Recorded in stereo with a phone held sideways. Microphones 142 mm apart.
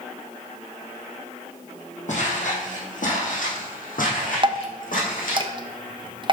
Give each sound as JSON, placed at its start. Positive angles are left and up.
{"t": 2.1, "sound": "footsteps", "side_deg": 55, "distance_m": 3.0}
{"t": 4.4, "sound": "dripping", "side_deg": -35, "distance_m": 0.9}